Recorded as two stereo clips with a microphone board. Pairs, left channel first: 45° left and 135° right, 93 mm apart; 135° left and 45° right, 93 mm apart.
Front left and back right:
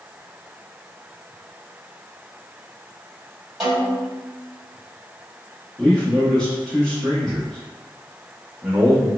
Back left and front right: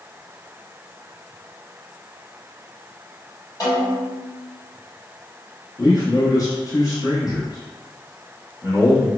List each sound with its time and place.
3.6 s a snare drum: 135° left, 1.5 m
5.8 s a man speaking: 125° left, 0.8 m